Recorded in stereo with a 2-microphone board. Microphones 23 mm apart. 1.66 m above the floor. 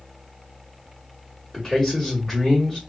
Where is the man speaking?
15° left (ahead or behind), 1.3 m.